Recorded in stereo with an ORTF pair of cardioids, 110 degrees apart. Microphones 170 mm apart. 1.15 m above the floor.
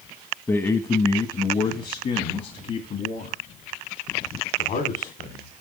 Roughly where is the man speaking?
Ahead.